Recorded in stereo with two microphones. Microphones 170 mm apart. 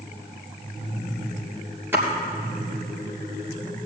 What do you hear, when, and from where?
1.9 s a splash: 15° right (ahead or behind), 3 m